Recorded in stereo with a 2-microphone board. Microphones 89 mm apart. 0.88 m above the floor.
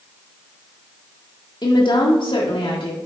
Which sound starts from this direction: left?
A woman speaking, at 1.6 s.